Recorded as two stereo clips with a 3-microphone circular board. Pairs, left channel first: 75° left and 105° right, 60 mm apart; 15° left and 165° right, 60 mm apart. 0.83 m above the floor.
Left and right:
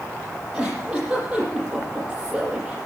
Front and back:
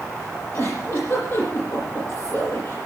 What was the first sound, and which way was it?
A giggle, 30° right.